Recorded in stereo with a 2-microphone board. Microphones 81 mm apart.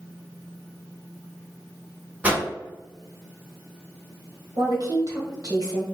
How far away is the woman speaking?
About 1.5 m.